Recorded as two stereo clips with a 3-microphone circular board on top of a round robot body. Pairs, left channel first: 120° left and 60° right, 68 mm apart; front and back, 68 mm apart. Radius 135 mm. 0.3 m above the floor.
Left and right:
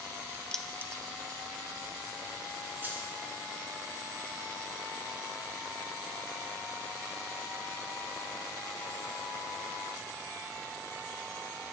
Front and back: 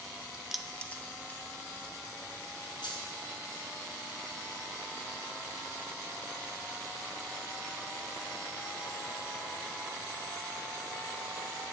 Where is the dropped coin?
Straight ahead, 0.9 m.